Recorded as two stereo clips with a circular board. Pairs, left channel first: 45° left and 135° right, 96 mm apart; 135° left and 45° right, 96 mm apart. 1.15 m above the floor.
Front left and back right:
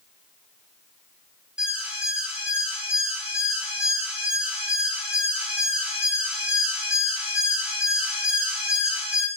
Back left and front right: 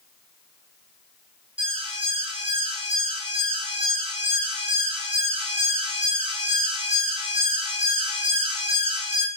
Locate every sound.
1.6 s an alarm: 55° right, 8 m